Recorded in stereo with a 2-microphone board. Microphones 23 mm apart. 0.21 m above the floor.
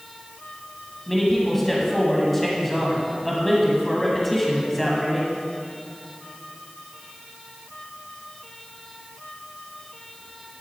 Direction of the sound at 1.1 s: 5° left (ahead or behind).